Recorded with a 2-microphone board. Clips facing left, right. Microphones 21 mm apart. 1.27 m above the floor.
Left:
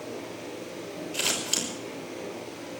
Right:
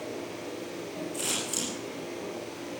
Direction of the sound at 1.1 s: 65° left (ahead or behind).